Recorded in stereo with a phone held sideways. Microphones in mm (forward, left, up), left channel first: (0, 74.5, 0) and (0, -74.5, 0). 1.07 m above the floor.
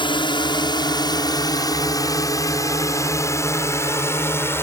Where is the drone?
35° left (ahead or behind); by 4.6 s 15° left (ahead or behind).